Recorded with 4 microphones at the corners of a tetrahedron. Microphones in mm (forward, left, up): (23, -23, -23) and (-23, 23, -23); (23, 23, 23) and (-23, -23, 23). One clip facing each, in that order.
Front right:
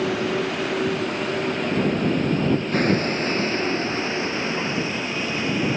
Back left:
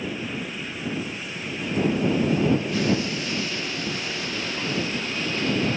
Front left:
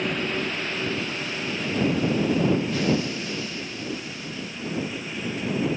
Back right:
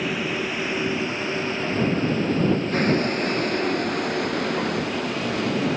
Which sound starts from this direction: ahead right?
A vehicle, at 0.0 s.